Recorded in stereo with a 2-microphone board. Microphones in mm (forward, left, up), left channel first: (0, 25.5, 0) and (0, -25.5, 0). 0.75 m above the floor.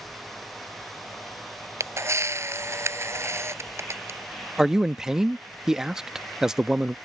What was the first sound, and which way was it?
A camera shutter, 65° right (ahead or behind).